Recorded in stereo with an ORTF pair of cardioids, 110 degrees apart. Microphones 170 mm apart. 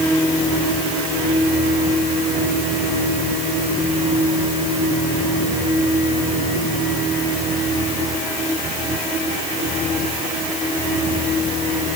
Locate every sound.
Only background noise.